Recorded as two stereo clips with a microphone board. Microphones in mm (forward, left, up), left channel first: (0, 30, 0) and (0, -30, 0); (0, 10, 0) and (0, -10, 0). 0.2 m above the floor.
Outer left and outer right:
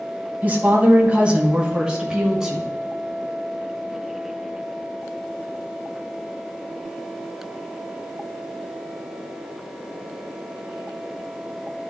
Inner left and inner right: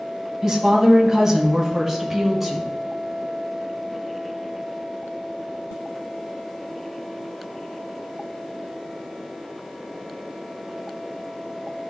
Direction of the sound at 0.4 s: 30° right (ahead or behind).